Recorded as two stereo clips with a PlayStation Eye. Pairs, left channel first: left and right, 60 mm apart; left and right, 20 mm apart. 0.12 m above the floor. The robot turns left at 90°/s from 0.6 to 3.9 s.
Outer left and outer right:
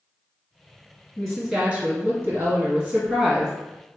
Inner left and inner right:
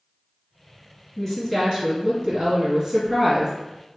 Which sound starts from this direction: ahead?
A woman speaking, at 1.2 s.